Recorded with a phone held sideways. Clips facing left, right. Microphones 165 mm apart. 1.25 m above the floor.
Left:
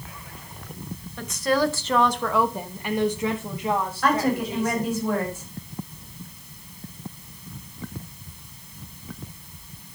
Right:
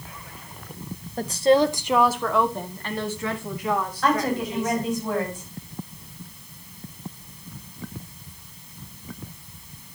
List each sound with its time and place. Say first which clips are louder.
1.2 s a woman speaking: right 5 dB; 40° right (ahead or behind), 0.9 m; by 4.9 s 35° left (ahead or behind), 2.5 m
4.0 s a woman speaking: left 1 dB; 10° left (ahead or behind), 5.5 m